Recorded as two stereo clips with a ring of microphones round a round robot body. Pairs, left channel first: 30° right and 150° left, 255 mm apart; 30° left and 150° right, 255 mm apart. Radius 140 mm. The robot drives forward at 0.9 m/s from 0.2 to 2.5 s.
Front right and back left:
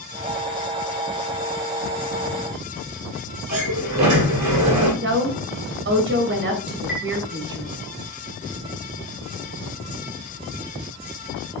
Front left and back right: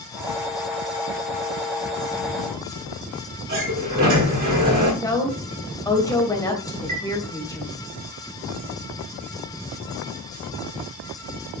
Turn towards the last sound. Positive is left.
turn(degrees=-160)